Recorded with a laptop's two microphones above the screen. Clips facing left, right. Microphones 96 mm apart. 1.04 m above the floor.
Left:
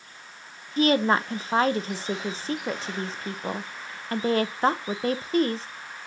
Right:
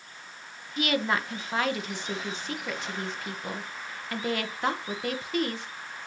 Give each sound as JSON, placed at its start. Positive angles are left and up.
{"t": 0.8, "sound": "a woman speaking", "side_deg": 35, "distance_m": 0.8}